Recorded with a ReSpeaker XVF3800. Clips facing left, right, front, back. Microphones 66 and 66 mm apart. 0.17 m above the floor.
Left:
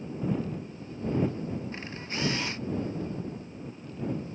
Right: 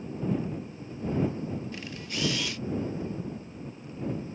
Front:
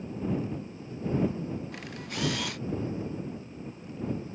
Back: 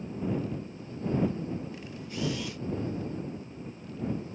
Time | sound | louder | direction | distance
1.7 | a camera shutter | even, front 1 dB | 30° left | ?